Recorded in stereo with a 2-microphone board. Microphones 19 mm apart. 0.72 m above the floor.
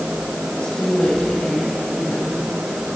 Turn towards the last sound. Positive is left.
turn(degrees=70)  # may be behind; listen again after turning